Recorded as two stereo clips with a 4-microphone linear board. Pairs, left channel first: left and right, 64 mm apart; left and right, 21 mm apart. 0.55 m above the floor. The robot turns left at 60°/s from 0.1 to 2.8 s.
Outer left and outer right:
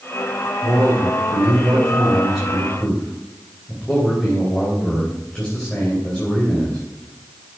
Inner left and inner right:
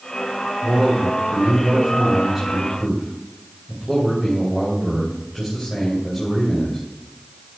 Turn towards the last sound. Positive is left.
turn(degrees=165)